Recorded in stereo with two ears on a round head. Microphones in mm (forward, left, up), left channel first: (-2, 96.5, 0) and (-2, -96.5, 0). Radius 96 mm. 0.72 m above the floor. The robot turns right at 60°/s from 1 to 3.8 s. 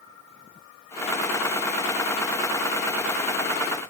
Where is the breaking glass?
No breaking glass in this recording.